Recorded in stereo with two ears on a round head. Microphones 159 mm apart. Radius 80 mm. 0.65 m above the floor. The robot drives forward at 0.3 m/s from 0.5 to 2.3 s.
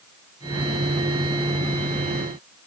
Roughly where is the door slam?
I don't hear a door slam.